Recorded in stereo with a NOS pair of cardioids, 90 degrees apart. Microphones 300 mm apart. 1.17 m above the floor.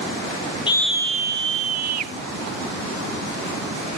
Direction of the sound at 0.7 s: 15° left.